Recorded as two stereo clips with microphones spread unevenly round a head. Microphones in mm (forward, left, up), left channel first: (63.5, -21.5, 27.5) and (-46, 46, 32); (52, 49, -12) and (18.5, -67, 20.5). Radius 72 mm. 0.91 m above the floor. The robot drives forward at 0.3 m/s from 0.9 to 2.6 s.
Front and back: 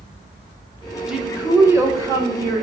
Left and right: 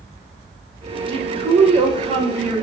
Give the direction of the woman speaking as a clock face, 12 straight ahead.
4 o'clock.